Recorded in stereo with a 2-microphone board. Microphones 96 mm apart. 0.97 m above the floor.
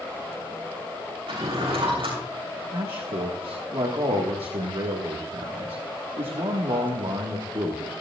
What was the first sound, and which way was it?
A drawer, 80° right.